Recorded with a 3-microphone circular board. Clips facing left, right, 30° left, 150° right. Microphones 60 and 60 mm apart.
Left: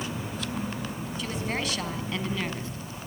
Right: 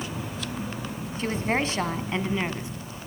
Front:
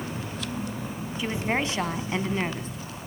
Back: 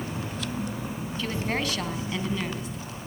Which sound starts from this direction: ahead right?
A woman speaking, at 1.2 s.